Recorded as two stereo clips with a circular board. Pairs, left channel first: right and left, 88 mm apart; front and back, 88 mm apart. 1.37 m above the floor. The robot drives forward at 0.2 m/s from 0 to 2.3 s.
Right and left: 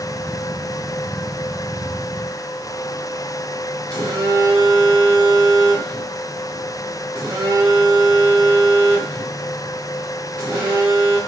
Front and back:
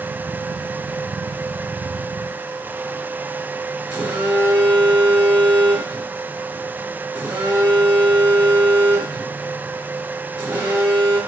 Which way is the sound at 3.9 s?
120° left.